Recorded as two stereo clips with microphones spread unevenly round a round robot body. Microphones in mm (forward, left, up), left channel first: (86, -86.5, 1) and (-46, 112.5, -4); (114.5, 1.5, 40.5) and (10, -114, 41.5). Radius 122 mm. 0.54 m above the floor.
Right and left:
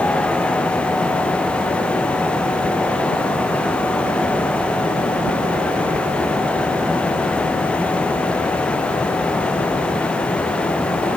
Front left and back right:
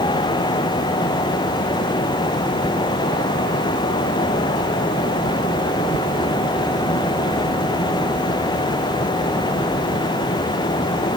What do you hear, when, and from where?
Only background noise.